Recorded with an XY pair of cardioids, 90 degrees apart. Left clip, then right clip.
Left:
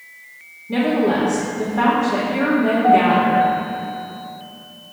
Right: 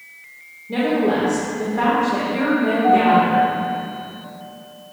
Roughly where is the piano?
Ahead.